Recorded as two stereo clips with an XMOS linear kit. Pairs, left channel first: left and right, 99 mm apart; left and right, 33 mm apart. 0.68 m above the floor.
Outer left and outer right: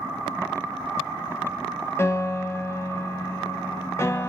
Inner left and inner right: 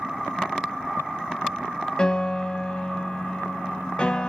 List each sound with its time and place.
2.0 s a piano: 30° left (ahead or behind), 1.0 m